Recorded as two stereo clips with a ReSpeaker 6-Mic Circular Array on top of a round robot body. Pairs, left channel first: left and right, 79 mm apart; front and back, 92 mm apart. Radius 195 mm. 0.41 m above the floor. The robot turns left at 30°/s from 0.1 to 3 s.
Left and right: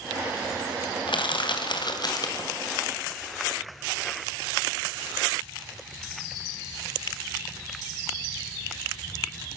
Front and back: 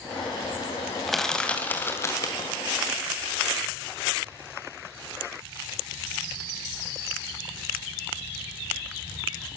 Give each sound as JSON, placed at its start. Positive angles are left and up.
{"t": 1.1, "sound": "crushing", "azimuth_deg": 90, "distance_m": 3.5}